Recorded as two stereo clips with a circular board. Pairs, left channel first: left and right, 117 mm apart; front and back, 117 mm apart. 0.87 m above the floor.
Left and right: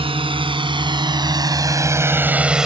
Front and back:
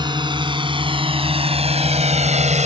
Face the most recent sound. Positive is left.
turn(degrees=-175)